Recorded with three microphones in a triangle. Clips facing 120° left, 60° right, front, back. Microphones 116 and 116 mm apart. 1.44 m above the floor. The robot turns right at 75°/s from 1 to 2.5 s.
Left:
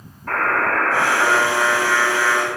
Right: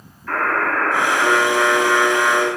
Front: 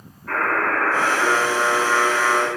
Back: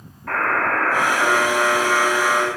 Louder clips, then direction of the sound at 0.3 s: Even, back 1 dB; 165° left.